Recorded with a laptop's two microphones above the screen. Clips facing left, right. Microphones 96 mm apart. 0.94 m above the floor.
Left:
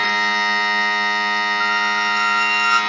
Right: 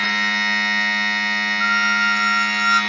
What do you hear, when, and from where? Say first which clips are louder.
0.0 s a machine running: left 3 dB; 60° left (ahead or behind), 0.8 m
1.6 s a squeak: even; 55° left (ahead or behind), 0.6 m